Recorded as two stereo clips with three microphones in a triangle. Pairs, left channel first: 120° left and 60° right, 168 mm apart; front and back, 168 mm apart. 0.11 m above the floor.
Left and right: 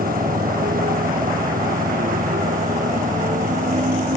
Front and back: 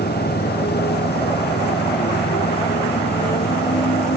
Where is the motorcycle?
25° right; by 4.2 s 20° right.